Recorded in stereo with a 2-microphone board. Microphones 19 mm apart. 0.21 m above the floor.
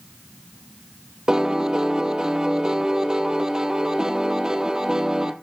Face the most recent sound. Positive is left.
turn(degrees=-35)  # may be behind; listen again after turning